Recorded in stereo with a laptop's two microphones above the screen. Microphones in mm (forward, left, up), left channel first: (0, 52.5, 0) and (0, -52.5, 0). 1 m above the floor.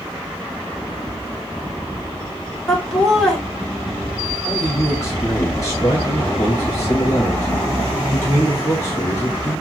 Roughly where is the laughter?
Centre.